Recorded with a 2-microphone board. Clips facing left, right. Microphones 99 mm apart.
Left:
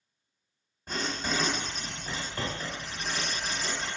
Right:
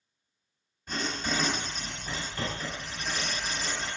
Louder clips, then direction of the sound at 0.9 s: Even; 40° left (ahead or behind).